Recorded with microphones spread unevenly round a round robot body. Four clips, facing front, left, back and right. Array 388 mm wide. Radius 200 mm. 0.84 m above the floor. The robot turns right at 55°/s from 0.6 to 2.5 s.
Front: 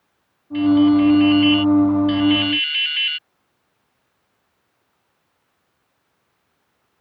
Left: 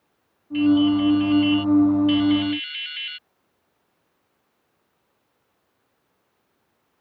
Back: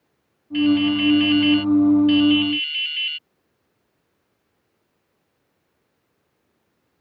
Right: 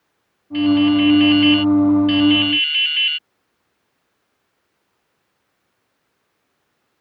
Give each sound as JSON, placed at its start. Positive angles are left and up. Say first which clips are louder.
{"t": 0.5, "sound": "dripping", "louder": "right 3 dB, front 4 dB", "azimuth_deg": -150}